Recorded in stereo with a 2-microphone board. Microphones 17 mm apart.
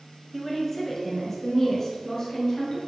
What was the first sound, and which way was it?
A woman speaking, 5° left (ahead or behind).